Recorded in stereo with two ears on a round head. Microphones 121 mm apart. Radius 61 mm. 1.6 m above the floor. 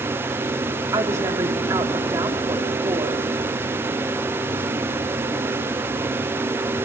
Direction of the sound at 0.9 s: 20° right (ahead or behind).